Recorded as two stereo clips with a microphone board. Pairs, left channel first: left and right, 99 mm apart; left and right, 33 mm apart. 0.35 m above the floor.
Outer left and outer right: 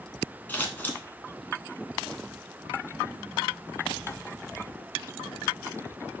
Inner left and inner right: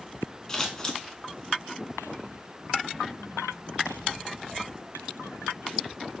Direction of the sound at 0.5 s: 20° left (ahead or behind).